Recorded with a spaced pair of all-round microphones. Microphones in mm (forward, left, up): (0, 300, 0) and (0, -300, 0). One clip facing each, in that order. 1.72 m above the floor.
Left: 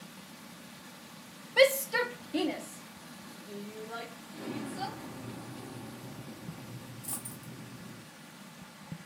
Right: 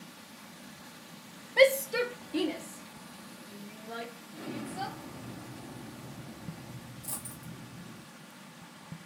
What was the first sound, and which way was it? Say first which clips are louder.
A shout: right 2 dB; 40° left (ahead or behind).